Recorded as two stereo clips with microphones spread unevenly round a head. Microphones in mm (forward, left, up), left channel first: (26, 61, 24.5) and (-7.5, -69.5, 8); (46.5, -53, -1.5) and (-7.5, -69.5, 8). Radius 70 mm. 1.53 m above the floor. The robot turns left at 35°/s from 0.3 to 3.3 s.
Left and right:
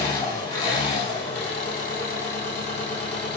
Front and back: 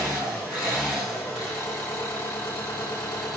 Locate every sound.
0.0 s an engine running: 140° left, 2 m; by 3.4 s 35° left, 2 m